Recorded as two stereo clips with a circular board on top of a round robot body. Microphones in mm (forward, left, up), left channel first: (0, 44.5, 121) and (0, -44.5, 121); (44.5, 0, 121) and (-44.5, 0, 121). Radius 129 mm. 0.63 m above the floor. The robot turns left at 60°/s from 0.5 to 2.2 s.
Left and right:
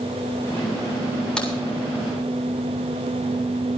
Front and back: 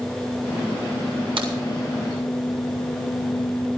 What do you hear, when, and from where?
1.4 s a crack: 170° left, 7 m; by 1.5 s 160° left, 7 m